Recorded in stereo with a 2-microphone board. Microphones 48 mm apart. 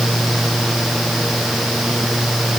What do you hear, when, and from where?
Only background noise.